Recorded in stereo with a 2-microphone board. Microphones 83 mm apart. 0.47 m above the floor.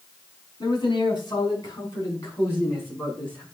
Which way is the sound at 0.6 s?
55° left (ahead or behind).